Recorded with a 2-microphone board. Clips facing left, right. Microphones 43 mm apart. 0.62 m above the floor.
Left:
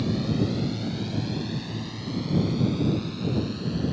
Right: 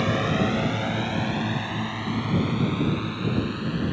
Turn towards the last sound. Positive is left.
turn(degrees=-30)  # may be behind; listen again after turning